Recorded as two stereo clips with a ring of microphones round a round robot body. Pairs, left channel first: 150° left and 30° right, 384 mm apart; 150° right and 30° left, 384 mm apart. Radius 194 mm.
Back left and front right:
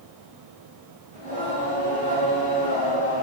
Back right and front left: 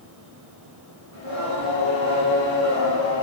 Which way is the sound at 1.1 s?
40° left.